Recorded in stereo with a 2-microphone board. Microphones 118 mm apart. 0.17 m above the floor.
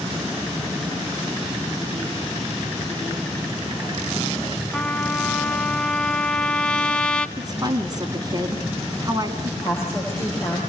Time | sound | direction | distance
4.7 | a trumpet | 10° left (ahead or behind) | 0.8 m
7.4 | a woman speaking | 35° right (ahead or behind) | 1.9 m
9.6 | a woman speaking | 20° left (ahead or behind) | 10 m